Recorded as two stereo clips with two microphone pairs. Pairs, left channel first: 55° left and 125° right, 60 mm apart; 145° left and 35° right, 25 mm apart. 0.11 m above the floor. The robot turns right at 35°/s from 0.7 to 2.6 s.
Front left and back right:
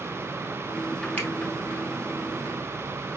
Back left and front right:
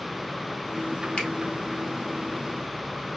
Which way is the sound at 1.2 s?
115° left.